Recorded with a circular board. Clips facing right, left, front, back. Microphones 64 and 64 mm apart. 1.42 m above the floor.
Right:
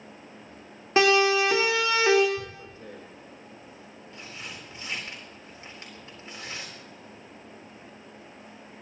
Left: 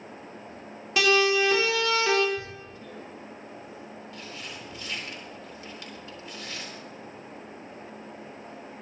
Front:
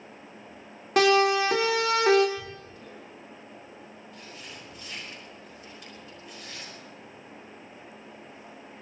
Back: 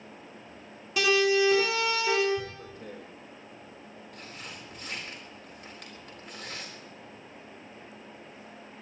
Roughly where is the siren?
Ahead right.